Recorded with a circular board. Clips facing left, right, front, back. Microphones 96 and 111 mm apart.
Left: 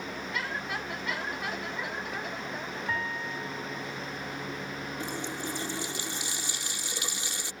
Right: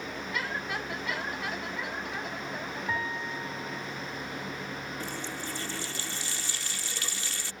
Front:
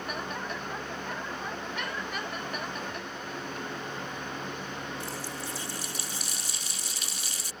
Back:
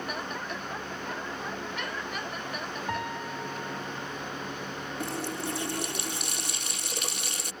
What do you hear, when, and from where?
2.9 s a piano: 175° right
5.0 s a running tap: 160° left